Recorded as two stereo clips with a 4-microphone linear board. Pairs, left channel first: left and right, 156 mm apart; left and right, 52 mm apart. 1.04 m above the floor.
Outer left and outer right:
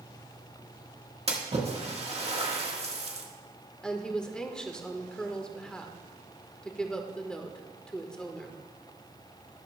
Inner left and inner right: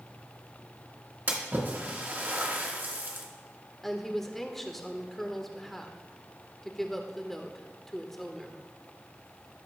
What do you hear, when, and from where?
1.3 s a splash: 40° right (ahead or behind), 1.6 m
3.8 s a woman speaking: 5° left (ahead or behind), 1.2 m